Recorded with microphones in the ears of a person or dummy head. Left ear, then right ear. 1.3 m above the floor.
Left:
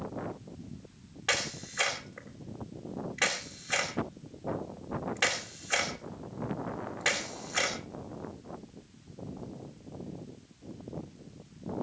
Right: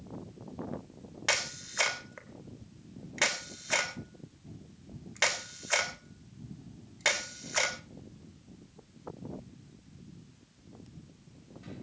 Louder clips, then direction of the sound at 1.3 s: Even; 40° right (ahead or behind).